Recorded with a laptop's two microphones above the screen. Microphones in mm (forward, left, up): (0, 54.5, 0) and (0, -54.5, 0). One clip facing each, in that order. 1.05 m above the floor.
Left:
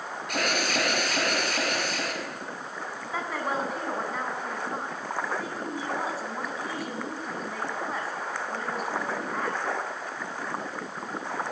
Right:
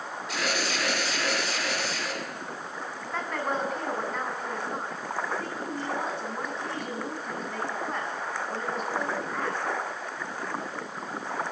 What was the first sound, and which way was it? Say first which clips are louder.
An alarm: left 2 dB; 50° left (ahead or behind).